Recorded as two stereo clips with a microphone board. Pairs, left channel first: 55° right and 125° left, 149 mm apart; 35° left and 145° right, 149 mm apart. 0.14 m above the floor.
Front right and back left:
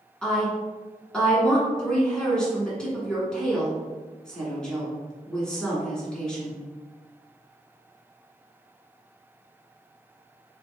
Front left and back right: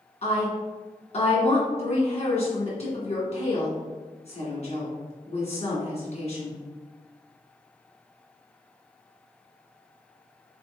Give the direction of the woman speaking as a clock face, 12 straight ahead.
11 o'clock.